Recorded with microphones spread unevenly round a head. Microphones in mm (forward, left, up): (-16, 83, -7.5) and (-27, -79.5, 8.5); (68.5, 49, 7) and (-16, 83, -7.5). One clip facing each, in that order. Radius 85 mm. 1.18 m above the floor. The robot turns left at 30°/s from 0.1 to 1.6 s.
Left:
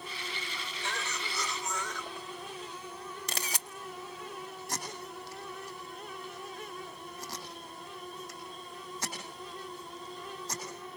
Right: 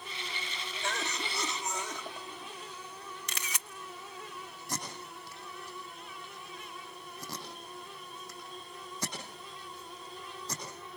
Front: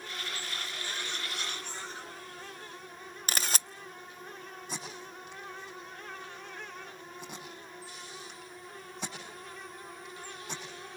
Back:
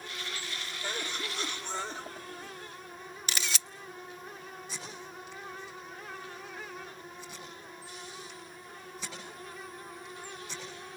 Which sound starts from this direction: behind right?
A cough, at 0.8 s.